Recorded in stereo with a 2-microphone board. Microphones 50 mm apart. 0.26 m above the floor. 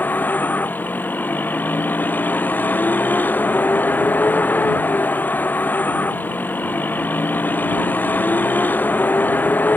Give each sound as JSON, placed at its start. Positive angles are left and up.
{"t": 0.0, "sound": "a vehicle", "side_deg": 35}